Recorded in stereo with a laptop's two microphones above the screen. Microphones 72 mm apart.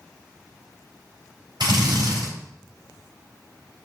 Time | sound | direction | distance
1.6 | a drill | 85° right | 4 m